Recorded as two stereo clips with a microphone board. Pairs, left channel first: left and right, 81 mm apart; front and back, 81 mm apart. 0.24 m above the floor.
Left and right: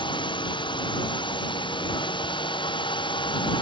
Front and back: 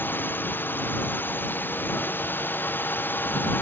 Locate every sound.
0.0 s a drone: 65° left